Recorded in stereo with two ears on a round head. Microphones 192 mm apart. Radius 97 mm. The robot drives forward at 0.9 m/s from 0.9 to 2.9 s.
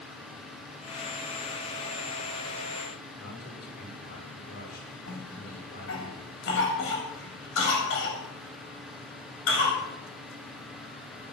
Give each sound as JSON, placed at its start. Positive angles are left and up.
{"t": 3.2, "sound": "a man speaking", "side_deg": 50, "distance_m": 6.5}
{"t": 5.1, "sound": "a cough", "side_deg": 60, "distance_m": 8.0}